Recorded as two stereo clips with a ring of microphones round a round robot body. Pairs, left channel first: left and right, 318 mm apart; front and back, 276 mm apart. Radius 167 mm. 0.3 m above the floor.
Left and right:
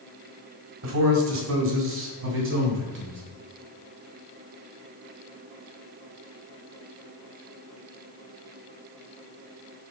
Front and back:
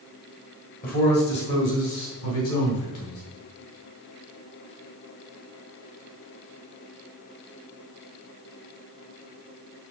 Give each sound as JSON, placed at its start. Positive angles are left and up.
{"t": 0.8, "sound": "a man speaking", "azimuth_deg": -55, "distance_m": 2.5}